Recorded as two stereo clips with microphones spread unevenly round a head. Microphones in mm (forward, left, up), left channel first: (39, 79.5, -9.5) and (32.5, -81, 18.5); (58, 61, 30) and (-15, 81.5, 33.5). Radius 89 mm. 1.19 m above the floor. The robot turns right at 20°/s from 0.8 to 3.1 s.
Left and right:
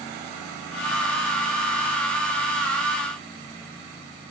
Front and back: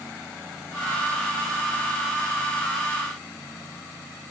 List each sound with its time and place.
Only background noise.